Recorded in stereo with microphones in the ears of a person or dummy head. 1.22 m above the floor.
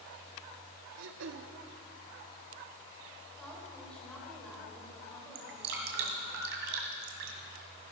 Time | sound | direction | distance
1.0 | throat clearing | 70° right (ahead or behind) | 1.1 m
3.4 | a woman speaking | 5° left (ahead or behind) | 4.5 m
5.3 | dripping | 55° right (ahead or behind) | 1.8 m